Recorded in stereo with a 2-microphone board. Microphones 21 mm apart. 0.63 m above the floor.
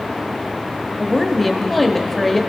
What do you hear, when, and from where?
1.0 s a woman speaking: 10° left (ahead or behind), 1.0 m